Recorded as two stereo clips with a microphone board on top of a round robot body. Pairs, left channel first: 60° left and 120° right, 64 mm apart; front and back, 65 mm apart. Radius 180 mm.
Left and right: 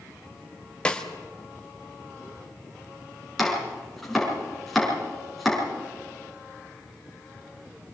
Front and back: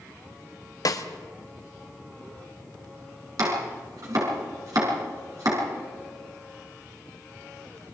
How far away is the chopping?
About 6.5 m.